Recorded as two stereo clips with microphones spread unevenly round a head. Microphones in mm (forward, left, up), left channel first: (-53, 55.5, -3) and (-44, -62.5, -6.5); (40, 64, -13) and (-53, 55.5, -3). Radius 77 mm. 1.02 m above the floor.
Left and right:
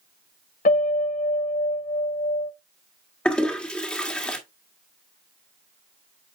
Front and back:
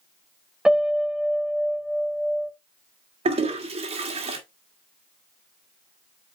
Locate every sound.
0.7 s a piano: 100° left, 1.5 m
3.2 s a toilet flushing: 175° left, 1.9 m